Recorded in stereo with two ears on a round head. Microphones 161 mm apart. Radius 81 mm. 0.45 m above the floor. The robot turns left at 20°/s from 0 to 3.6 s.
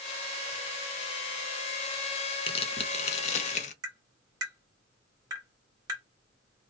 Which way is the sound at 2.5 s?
30° left (ahead or behind).